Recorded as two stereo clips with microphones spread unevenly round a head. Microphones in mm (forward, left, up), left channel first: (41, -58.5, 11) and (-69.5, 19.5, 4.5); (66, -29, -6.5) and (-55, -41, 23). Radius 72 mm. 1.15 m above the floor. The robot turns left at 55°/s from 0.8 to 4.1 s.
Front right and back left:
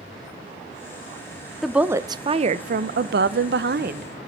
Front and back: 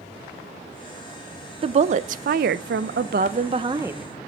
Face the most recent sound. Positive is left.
turn(degrees=95)